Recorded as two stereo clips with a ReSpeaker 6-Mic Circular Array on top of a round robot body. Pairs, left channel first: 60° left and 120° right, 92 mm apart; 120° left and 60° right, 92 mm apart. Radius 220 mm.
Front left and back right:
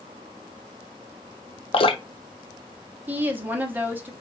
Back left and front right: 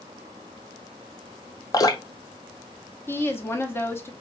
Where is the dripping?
70° left, 0.8 m.